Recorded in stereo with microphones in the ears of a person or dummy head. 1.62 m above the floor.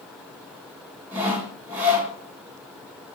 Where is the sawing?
5° right (ahead or behind), 0.9 m.